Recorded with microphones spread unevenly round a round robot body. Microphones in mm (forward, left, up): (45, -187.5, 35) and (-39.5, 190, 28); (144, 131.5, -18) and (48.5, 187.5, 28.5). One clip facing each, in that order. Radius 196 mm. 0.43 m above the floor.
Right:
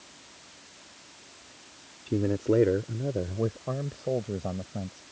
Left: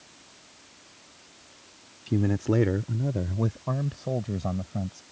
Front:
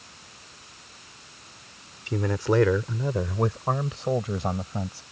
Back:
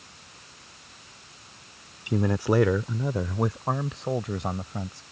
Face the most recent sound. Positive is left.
turn(degrees=40)